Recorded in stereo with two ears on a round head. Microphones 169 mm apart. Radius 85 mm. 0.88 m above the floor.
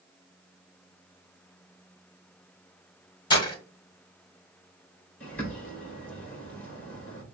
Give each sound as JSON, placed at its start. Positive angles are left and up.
{"t": 3.3, "sound": "breaking glass", "side_deg": 25, "distance_m": 1.6}
{"t": 5.2, "sound": "a bird", "side_deg": 10, "distance_m": 2.5}